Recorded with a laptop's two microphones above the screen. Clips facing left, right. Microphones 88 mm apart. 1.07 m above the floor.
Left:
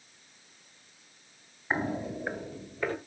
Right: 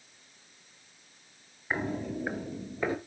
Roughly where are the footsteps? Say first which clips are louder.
Left 1 dB; left.